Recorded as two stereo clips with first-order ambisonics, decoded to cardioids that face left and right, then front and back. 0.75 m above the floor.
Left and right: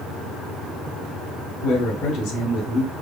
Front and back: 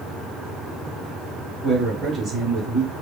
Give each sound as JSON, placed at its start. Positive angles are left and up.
{"t": 1.6, "sound": "a man speaking", "azimuth_deg": 105, "distance_m": 1.8}